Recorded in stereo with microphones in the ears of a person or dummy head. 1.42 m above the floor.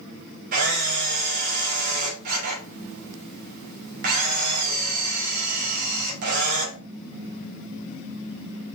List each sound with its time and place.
0.5 s a camera shutter: 50° right (ahead or behind), 3.5 m